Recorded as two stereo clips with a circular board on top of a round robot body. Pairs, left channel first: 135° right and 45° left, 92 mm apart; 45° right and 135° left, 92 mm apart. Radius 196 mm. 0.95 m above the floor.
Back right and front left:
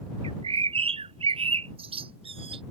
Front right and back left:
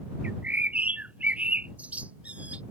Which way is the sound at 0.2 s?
60° left.